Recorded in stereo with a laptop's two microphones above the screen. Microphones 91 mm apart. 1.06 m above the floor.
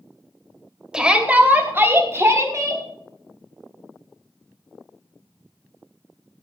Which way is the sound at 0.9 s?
5° right (ahead or behind).